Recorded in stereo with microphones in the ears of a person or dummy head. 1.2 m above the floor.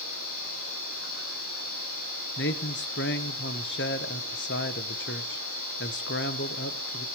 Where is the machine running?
75° left (ahead or behind), 4.5 m.